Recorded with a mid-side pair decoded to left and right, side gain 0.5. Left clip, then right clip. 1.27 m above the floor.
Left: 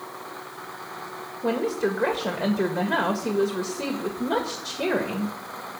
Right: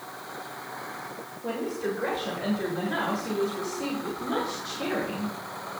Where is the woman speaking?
65° left, 1.7 m.